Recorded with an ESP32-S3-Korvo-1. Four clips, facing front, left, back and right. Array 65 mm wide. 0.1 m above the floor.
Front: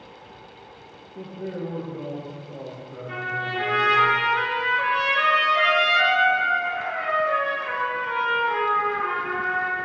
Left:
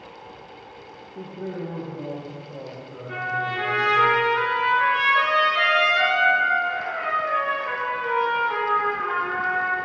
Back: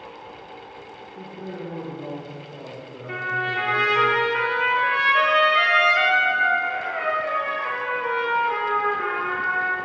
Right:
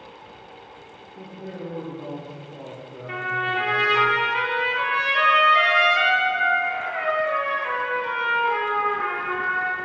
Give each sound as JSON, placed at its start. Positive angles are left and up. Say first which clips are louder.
{"t": 1.1, "sound": "a man speaking", "louder": "left 4 dB, front 3 dB", "azimuth_deg": 45, "distance_m": 2.5}
{"t": 3.1, "sound": "a trumpet", "louder": "right 1 dB, back 3 dB", "azimuth_deg": -120, "distance_m": 2.5}